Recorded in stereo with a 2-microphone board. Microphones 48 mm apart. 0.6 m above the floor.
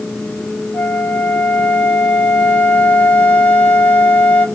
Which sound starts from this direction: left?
A flute, at 0.7 s.